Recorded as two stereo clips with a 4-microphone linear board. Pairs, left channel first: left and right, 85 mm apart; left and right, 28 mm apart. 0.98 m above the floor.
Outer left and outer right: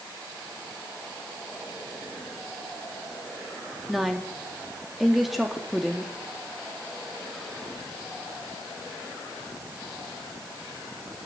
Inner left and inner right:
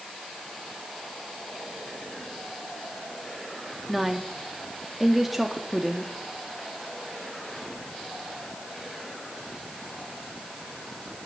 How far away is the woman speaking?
About 2 m.